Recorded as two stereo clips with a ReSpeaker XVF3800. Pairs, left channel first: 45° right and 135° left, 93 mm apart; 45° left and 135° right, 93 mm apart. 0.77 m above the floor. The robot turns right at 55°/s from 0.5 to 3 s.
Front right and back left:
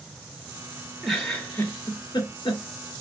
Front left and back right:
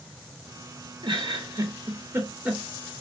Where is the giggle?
135° right, 1.9 m; by 2.6 s 50° right, 1.9 m.